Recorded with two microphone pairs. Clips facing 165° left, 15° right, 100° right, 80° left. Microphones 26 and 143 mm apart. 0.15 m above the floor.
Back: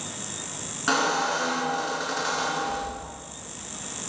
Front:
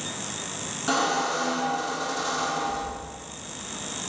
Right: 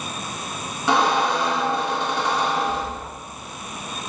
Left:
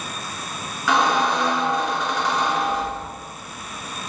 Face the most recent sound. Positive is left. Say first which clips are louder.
# back 1 dB, even
turn(degrees=-150)